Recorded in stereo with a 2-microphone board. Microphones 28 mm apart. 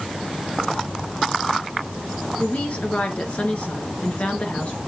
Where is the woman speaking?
55° left (ahead or behind), 2.5 m.